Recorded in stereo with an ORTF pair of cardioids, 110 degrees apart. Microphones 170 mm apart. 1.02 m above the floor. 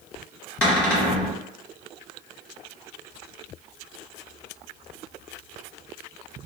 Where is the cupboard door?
5° left, 1.1 m.